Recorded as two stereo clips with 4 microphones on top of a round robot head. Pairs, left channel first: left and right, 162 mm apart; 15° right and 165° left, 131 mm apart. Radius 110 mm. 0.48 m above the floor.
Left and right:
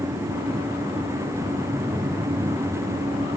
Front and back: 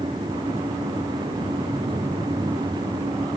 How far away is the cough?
I don't hear a cough.